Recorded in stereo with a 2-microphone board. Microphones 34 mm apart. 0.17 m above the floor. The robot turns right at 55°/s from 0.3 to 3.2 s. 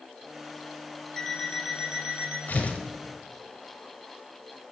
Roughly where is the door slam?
No door slam in this recording.